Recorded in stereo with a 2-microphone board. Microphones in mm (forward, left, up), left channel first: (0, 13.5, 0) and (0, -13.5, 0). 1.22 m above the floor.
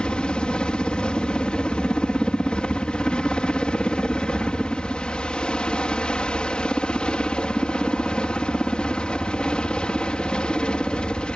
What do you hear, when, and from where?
0.0 s a helicopter: 40° left (ahead or behind)